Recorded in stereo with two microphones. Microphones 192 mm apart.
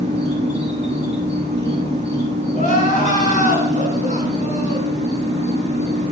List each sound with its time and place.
0.0 s an insect: 35° right (ahead or behind), 1.9 m
2.5 s crying: 40° left (ahead or behind), 2 m